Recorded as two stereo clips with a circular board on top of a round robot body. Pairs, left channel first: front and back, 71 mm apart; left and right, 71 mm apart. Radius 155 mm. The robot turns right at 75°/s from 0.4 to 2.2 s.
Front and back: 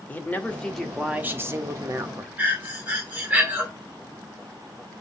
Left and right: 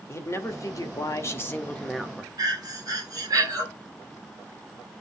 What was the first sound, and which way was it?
A man speaking, 60° left.